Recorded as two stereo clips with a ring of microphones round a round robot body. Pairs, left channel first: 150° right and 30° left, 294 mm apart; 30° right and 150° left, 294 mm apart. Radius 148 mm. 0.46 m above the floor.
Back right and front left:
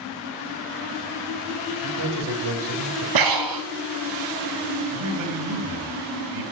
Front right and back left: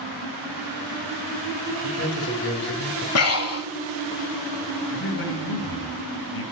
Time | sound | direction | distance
1.8 | a man speaking | 20° left | 3 m
3.1 | breathing | 10° left | 0.7 m
4.9 | a man speaking | 15° left | 2.5 m